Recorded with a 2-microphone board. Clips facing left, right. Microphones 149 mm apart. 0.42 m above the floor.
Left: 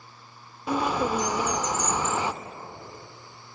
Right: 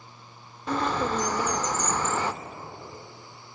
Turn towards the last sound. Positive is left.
turn(degrees=10)  # may be behind; listen again after turning